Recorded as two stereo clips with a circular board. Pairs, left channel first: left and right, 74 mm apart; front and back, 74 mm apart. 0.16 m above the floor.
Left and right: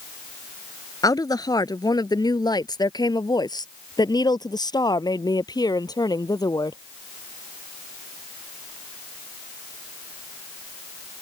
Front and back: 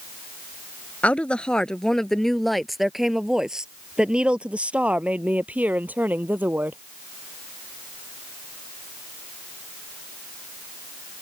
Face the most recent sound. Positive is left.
turn(degrees=115)